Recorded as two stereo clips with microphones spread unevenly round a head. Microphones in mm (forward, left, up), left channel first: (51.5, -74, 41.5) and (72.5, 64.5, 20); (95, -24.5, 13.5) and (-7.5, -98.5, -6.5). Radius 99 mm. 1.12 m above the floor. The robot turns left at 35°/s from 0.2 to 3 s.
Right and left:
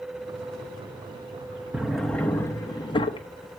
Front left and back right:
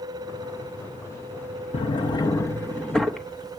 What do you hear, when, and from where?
1.7 s a drawer: 5° right, 1.0 m; by 3.6 s 50° right, 1.0 m